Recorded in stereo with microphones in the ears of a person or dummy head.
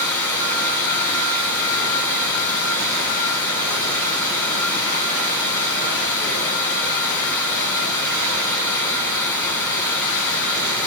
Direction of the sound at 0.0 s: 10° left (ahead or behind).